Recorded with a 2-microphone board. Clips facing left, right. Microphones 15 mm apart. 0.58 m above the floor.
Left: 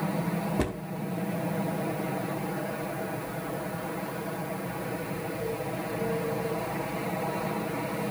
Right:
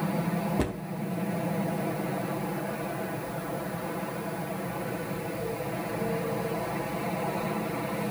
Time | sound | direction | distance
0.6 | a cupboard door | 10° left (ahead or behind) | 0.9 m